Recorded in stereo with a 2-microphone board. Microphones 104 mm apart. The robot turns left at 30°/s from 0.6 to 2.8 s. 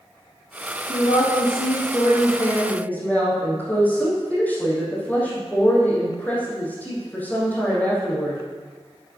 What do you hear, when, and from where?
0.9 s a woman speaking: 75° left, 4.5 m; by 8.4 s 15° left, 4.5 m